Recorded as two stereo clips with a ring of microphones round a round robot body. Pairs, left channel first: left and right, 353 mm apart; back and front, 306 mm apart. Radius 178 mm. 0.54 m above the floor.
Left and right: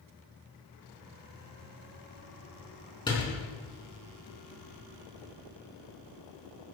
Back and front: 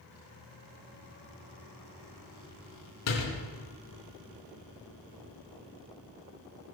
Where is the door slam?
165° left, 5.5 m.